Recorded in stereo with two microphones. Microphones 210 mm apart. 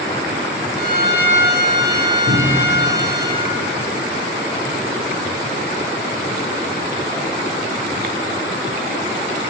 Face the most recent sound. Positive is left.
turn(degrees=80)